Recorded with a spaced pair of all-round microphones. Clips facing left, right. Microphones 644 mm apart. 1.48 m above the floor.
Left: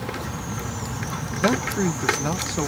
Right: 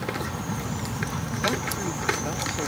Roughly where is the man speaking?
Left.